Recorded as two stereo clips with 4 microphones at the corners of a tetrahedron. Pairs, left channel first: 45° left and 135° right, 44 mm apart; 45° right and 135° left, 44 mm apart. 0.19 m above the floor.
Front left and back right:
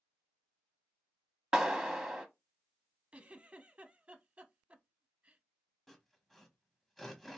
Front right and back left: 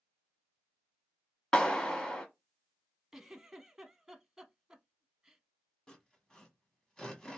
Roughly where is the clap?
Right.